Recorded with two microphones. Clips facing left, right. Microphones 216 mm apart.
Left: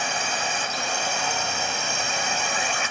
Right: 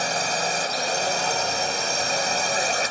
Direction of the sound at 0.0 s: 40° right (ahead or behind).